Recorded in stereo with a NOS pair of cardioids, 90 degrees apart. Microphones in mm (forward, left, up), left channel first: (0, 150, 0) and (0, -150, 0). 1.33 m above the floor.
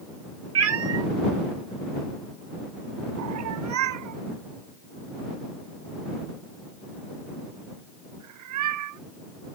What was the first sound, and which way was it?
A cat meowing, 60° right.